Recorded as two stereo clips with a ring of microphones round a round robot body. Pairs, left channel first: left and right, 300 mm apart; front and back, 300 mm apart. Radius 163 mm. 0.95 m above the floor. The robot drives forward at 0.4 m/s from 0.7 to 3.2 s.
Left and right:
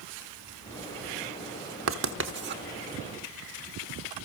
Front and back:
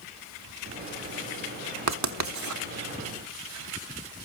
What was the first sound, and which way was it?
Writing, 145° right.